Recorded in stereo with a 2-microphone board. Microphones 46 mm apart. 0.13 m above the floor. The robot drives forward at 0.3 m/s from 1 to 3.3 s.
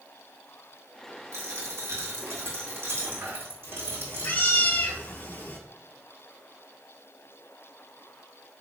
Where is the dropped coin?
75° right (ahead or behind), 1.5 m; by 4.4 s 55° right (ahead or behind), 1.8 m.